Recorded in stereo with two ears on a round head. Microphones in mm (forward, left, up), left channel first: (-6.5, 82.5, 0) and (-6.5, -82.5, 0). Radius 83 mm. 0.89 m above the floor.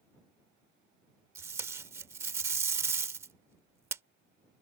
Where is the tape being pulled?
15° right (ahead or behind).